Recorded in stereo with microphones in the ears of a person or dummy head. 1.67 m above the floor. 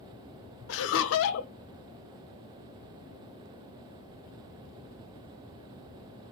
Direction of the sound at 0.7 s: 70° left (ahead or behind).